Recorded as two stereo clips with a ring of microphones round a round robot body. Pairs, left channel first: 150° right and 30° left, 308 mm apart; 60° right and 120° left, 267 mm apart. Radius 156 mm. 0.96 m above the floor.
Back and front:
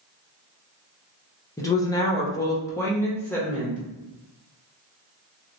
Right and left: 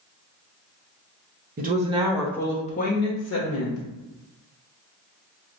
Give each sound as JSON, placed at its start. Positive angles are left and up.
{"t": 1.6, "sound": "a woman speaking", "azimuth_deg": 135, "distance_m": 0.7}